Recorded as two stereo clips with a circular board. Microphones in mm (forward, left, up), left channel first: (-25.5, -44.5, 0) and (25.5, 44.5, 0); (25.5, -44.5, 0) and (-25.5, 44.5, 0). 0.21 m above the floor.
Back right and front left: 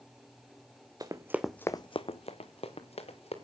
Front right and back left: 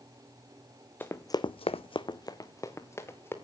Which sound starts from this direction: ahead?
Running footsteps, at 1.0 s.